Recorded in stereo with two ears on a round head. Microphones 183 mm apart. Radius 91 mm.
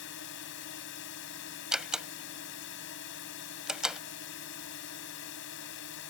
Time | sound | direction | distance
0.0 | a drone | 65° left (ahead or behind) | ?
1.7 | a door slam | 5° right (ahead or behind) | ?